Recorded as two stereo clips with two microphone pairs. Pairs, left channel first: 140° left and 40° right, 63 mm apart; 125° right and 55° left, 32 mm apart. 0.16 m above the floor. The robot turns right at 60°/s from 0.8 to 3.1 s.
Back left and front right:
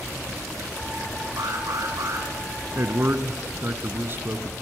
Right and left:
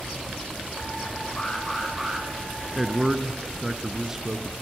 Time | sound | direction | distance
1.4 | an alarm | 60° right | 7.5 m
2.7 | a man speaking | 35° right | 2 m